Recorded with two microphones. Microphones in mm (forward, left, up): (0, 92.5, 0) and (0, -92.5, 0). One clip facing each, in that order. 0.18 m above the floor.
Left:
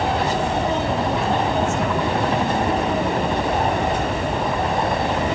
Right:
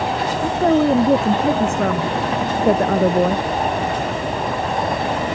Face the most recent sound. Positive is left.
turn(degrees=-65)  # may be behind; listen again after turning